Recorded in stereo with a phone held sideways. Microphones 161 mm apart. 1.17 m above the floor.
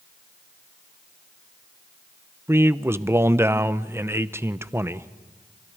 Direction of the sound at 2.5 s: 15° right (ahead or behind).